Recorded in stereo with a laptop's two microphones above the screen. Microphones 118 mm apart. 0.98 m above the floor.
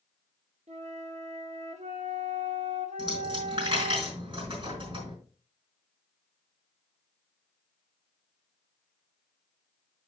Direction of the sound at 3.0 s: 50° right (ahead or behind).